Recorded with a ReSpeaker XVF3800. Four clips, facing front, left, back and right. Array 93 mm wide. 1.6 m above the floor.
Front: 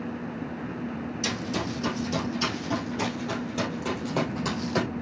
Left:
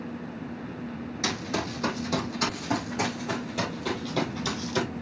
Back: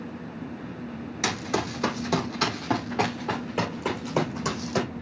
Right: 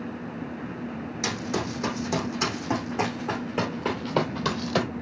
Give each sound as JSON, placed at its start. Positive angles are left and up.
{"t": 1.2, "sound": "running footsteps", "azimuth_deg": -175, "distance_m": 4.0}